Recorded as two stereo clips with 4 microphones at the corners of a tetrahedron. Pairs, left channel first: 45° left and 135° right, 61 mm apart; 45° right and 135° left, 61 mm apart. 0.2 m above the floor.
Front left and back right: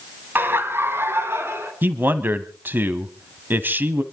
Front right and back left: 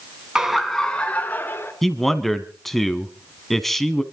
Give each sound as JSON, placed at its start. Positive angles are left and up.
{"t": 0.3, "sound": "laughter", "azimuth_deg": -155, "distance_m": 1.8}
{"t": 1.8, "sound": "a man speaking", "azimuth_deg": -125, "distance_m": 1.1}